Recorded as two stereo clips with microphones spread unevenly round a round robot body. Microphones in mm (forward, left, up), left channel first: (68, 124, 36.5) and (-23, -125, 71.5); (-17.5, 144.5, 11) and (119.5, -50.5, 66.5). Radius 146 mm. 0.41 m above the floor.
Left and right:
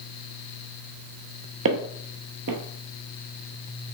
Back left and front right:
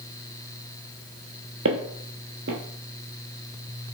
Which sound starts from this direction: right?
Footsteps, at 1.6 s.